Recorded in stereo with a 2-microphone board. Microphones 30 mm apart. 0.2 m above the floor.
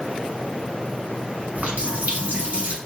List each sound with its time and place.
1.6 s a running tap: 55° right (ahead or behind), 1.2 m